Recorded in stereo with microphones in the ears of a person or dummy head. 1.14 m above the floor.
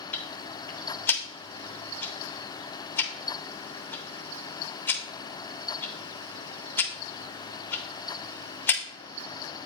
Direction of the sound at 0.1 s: 10° left (ahead or behind).